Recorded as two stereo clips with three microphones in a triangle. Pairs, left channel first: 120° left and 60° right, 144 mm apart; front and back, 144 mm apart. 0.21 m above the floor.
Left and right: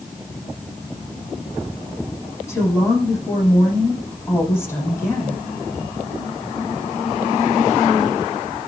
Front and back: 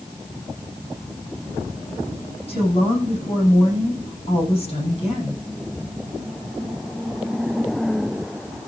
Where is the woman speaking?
50° left, 10 m.